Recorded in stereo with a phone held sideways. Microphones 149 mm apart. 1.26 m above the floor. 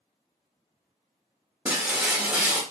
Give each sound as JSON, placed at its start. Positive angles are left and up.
{"t": 1.6, "sound": "breaking glass", "side_deg": -10, "distance_m": 1.2}